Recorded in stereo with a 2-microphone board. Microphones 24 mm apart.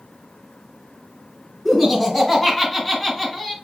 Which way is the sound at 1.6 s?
10° left (ahead or behind).